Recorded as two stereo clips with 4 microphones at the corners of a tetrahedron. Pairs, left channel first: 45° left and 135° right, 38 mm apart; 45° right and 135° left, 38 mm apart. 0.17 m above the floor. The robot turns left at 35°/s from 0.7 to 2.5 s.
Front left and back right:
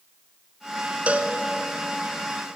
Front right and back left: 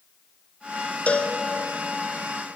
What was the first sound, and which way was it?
A cowbell, 90° right.